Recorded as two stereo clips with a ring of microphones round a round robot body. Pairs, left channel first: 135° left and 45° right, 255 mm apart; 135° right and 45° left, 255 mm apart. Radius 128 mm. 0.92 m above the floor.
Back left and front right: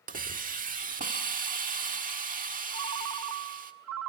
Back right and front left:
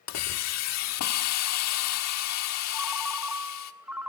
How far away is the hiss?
About 1.5 m.